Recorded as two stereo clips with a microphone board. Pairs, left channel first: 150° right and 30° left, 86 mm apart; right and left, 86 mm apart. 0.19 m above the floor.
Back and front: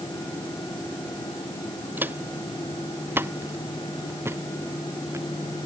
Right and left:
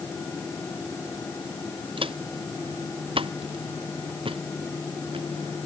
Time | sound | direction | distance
2.0 | footsteps | 100° left | ?